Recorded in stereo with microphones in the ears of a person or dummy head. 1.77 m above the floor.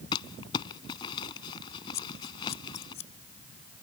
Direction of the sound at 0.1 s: 25° left (ahead or behind).